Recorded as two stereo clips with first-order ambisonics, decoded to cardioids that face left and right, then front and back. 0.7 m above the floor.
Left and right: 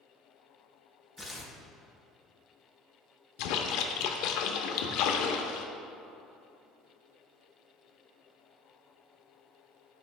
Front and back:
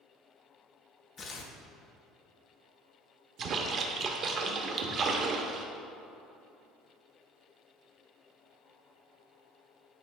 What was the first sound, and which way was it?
Tearing paper, straight ahead.